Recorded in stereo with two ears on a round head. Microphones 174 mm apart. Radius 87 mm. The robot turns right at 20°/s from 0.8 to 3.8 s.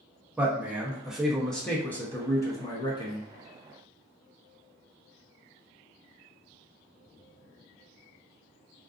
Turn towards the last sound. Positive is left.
turn(degrees=50)